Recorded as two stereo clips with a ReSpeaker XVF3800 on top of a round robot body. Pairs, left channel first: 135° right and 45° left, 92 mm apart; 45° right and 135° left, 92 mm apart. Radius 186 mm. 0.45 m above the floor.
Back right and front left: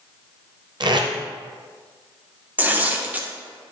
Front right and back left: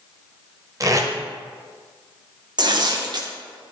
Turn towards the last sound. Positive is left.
turn(degrees=115)